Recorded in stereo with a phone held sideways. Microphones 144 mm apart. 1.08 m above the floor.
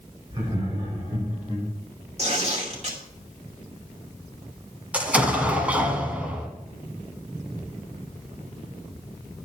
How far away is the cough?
I don't hear a cough.